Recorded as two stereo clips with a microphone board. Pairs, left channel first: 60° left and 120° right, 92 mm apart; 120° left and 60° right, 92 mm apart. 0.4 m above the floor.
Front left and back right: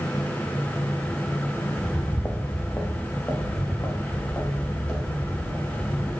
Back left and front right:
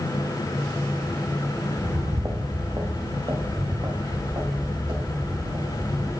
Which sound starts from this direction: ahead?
Footsteps, at 1.8 s.